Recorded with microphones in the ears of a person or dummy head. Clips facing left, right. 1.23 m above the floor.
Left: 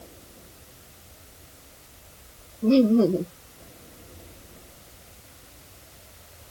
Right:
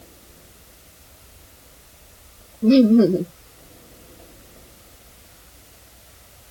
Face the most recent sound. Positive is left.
turn(degrees=-20)  # may be behind; listen again after turning